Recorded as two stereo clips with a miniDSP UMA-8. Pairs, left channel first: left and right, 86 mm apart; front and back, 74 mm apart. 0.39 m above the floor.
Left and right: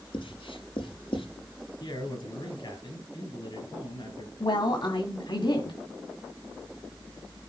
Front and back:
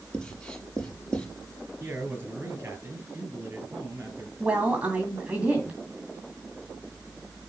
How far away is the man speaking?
About 5.5 m.